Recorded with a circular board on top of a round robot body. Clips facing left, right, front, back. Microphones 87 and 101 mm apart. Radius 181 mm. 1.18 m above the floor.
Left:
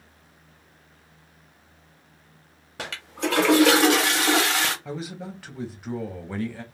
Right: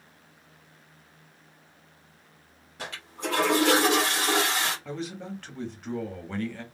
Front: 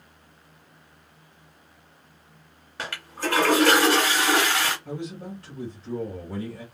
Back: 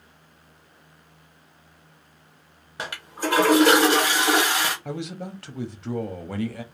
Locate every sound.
2.8 s a toilet flushing: 105° left, 0.6 m
4.8 s a man speaking: 175° left, 0.9 m